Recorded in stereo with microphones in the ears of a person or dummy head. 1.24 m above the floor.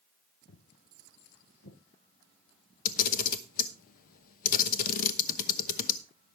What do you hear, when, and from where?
0.5 s footsteps: 60° left (ahead or behind), 2 m; by 1.8 s 65° left (ahead or behind), 3 m
2.9 s a camera shutter: 45° left (ahead or behind), 1.0 m